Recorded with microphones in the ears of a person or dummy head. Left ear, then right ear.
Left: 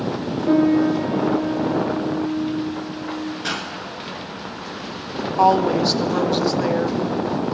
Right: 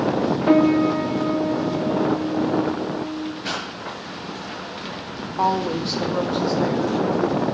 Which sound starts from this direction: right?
A piano, at 0.5 s.